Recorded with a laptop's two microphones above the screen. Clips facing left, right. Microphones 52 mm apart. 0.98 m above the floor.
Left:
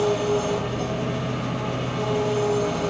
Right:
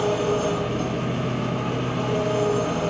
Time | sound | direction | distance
0.0 | an engine running | 40° right (ahead or behind) | 9 m